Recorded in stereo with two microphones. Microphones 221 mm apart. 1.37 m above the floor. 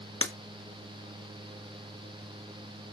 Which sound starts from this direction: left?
Breaking glass, at 0.2 s.